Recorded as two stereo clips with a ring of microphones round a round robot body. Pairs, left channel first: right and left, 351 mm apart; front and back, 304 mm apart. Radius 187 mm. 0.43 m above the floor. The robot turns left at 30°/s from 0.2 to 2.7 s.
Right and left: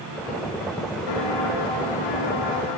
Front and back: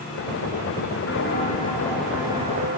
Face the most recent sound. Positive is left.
turn(degrees=-110)